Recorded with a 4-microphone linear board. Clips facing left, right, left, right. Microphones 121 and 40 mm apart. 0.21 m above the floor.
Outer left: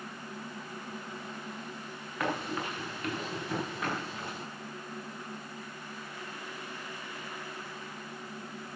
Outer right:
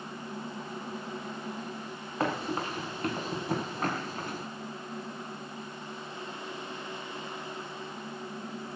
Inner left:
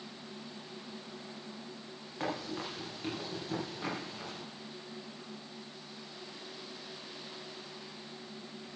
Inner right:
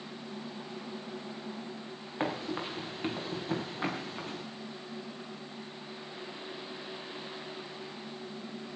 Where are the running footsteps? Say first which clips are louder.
Outer right 2 dB, inner right 3 dB; 35° right (ahead or behind), 5 m; by 4.4 s 45° right (ahead or behind), 5.5 m.